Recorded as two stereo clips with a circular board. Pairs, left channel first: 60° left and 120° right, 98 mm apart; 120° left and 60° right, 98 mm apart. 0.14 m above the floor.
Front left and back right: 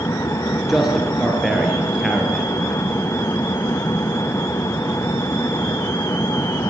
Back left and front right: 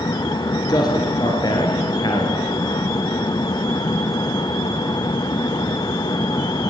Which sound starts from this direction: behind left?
A man speaking, at 0.7 s.